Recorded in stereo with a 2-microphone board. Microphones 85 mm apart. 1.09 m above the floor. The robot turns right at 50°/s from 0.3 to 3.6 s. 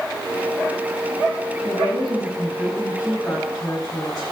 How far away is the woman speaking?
About 5.5 m.